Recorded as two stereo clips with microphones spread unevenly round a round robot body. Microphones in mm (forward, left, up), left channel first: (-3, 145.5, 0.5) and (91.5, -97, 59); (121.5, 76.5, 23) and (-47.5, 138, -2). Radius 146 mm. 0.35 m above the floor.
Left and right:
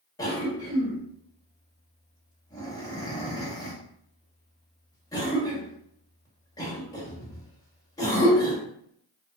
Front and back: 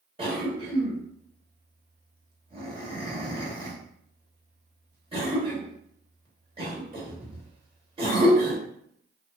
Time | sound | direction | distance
0.2 | a cough | 160° left | 0.9 m